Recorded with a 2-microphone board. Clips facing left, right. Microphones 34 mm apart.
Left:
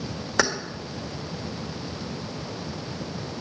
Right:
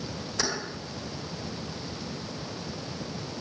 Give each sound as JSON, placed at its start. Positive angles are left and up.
{"t": 0.4, "sound": "keys jangling", "side_deg": 80, "distance_m": 1.4}